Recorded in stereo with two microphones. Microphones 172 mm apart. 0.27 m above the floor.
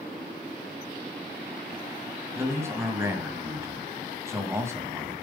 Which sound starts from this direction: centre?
A man speaking, at 2.4 s.